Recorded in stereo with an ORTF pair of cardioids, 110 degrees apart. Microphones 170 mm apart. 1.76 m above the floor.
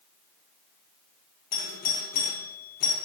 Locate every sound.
1.5 s a doorbell: 65° left, 1.9 m